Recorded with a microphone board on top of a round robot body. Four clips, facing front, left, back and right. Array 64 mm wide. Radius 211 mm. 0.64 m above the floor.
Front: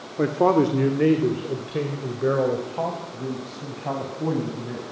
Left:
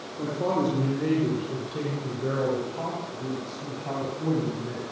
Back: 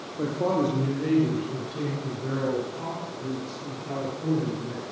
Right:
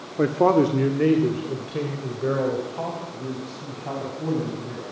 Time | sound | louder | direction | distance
0.2 | a woman speaking | right 8 dB, front 6 dB | 55° right | 2.5 m